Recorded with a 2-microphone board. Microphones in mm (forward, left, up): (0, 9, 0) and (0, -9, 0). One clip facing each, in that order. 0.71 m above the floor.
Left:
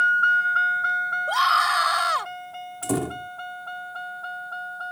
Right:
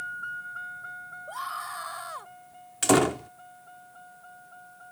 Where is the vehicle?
65° left (ahead or behind); by 4.9 s 70° left (ahead or behind).